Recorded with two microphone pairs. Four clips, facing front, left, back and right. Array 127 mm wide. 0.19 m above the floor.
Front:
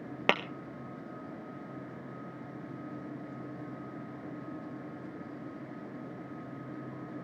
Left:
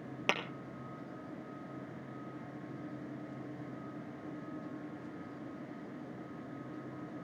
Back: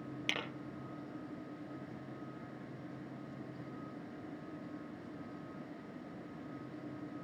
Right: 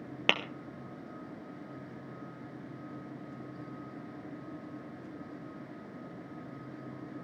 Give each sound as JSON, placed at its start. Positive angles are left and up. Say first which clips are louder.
{"t": 0.3, "sound": "tapping", "louder": "right 3 dB, front 14 dB", "azimuth_deg": -10, "distance_m": 1.4}